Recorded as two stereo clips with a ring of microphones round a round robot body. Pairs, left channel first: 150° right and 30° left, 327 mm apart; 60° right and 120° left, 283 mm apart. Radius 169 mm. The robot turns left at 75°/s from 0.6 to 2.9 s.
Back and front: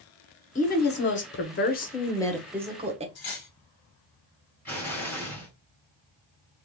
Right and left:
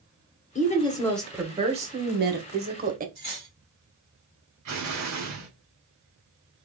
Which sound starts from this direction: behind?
Cutlery clinking, at 3.1 s.